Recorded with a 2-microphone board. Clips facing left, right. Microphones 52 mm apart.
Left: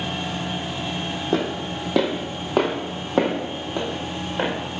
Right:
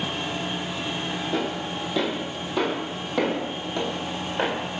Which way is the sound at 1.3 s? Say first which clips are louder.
Left 6 dB; 55° left (ahead or behind).